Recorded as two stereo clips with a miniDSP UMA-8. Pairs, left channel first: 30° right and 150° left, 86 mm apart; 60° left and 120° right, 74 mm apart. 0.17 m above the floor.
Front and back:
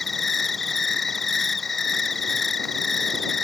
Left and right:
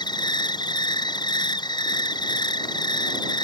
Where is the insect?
60° left.